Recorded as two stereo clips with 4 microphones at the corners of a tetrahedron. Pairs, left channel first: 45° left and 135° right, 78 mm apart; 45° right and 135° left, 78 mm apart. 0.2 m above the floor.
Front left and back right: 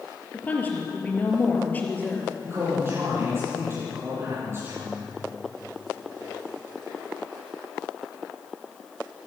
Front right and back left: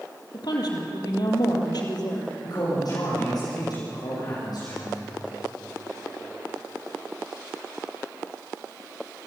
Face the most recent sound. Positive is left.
turn(degrees=-75)